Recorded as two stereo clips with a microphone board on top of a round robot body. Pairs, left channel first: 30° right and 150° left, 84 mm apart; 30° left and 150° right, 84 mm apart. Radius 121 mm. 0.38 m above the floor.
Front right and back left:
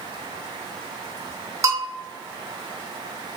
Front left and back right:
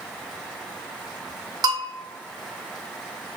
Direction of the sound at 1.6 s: 170° right.